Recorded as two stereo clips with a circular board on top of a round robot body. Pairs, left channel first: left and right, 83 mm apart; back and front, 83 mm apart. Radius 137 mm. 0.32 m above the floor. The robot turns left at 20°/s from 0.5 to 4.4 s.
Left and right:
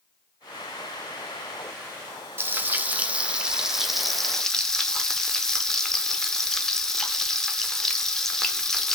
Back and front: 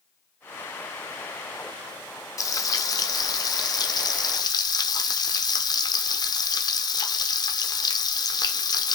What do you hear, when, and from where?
2.4 s frying: 145° right, 0.8 m; by 8.9 s 175° left, 0.8 m